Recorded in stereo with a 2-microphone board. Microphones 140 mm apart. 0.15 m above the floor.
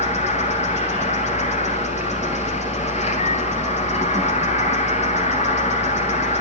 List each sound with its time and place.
0.0 s an insect: 50° left (ahead or behind), 1.6 m